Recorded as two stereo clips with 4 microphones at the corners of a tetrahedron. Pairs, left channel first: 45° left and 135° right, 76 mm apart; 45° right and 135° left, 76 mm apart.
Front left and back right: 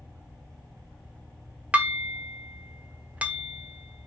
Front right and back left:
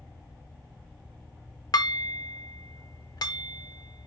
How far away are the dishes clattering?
About 0.8 m.